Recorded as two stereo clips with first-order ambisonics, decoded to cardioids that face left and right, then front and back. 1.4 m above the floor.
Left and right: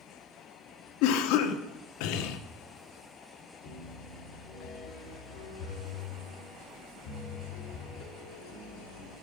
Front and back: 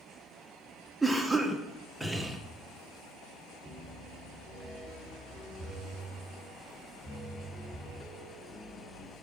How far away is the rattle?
I don't hear a rattle.